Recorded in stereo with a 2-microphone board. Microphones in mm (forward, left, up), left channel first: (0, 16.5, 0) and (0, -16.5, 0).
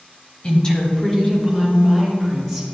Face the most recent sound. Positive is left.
turn(degrees=5)  # may be behind; listen again after turning